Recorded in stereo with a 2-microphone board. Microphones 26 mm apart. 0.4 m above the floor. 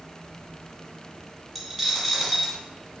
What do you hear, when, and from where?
1.6 s a dropped coin: 5° left (ahead or behind), 1.0 m